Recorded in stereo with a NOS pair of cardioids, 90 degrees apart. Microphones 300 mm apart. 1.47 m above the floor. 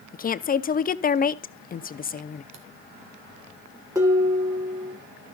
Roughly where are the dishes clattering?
Ahead.